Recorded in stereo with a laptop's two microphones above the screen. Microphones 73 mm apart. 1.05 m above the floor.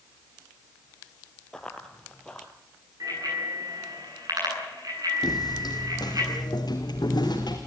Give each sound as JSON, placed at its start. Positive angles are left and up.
{"t": 1.5, "sound": "running footsteps", "side_deg": 10, "distance_m": 1.5}
{"t": 3.0, "sound": "a bicycle bell", "side_deg": -60, "distance_m": 9.0}
{"t": 5.2, "sound": "footsteps", "side_deg": 70, "distance_m": 3.0}